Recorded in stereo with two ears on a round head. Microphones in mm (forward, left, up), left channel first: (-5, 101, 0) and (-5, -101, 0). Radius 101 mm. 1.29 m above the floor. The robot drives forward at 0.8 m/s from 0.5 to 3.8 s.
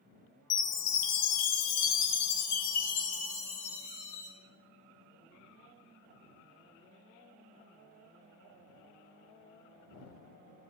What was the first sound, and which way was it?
A chime, 55° left (ahead or behind).